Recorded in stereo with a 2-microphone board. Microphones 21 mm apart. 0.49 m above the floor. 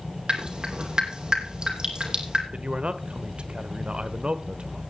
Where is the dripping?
45° right (ahead or behind), 2.5 m.